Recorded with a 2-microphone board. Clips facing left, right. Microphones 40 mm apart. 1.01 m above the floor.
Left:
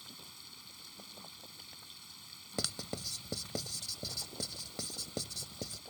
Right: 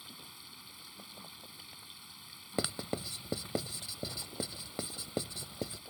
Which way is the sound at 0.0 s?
15° right (ahead or behind).